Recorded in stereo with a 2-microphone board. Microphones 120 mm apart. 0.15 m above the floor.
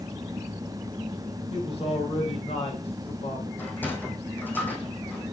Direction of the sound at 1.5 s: 55° left (ahead or behind).